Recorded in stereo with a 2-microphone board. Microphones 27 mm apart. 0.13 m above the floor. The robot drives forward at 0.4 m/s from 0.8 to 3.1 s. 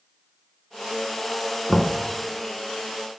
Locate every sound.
1.7 s knocking: centre (ahead or behind), 0.7 m